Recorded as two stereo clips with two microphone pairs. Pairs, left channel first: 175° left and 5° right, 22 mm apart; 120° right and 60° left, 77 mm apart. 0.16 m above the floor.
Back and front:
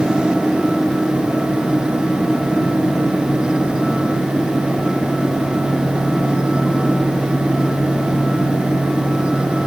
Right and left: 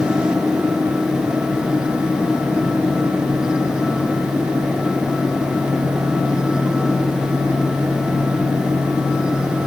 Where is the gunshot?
I don't hear a gunshot.